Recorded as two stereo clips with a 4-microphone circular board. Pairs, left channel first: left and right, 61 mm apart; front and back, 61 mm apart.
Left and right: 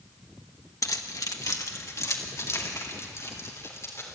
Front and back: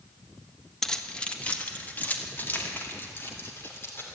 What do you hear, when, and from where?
0.8 s keys jangling: 80° left, 1.2 m; by 4.2 s 50° left, 3.5 m